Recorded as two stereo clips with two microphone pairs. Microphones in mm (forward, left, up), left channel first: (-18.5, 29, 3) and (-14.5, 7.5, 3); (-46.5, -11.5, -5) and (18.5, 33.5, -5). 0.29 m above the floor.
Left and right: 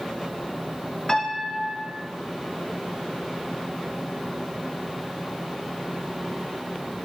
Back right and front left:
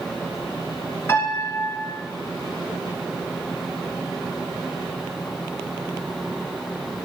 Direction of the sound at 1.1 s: 160° left.